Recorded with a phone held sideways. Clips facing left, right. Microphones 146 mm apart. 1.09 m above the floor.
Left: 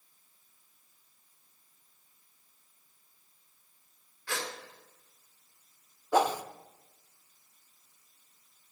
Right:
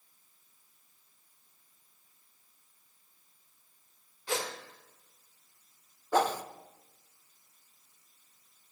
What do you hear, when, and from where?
4.3 s a gasp: 20° right (ahead or behind), 2.5 m
6.1 s a whoosh: 10° left (ahead or behind), 0.7 m